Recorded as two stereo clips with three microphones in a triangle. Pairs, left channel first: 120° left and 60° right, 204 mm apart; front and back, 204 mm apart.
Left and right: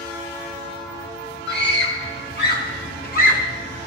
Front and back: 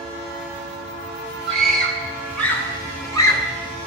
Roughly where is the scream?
Left.